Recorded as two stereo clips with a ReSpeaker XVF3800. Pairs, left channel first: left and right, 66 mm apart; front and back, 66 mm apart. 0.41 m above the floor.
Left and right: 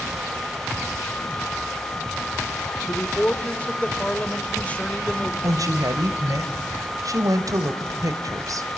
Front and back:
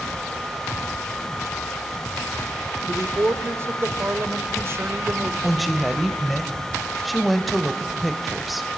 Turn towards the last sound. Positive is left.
turn(degrees=-90)